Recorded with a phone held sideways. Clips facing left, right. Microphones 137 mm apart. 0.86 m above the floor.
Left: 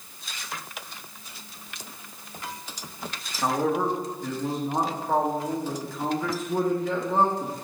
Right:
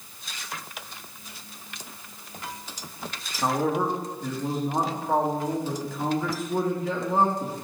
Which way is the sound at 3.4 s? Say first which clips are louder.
Even; centre (ahead or behind).